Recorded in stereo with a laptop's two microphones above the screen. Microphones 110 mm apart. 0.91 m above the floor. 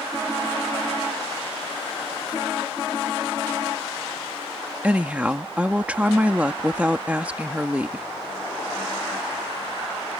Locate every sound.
4.8 s a woman speaking: 10° right (ahead or behind)